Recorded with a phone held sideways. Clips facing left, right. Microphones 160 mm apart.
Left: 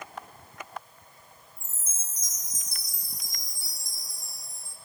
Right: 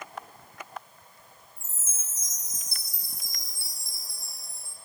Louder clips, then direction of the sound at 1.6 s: Even; 15° left (ahead or behind).